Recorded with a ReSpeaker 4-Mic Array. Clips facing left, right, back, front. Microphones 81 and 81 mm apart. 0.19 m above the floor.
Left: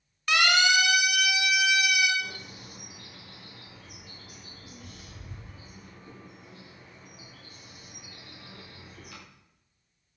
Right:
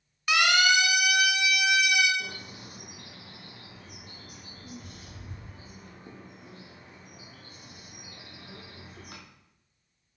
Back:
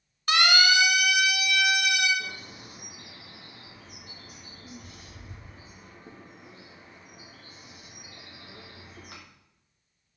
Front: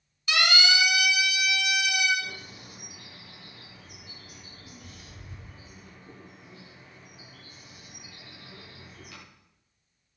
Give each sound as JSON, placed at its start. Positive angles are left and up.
{"t": 0.3, "sound": "a siren", "azimuth_deg": -175, "distance_m": 3.0}
{"t": 2.2, "sound": "a bird", "azimuth_deg": -135, "distance_m": 7.0}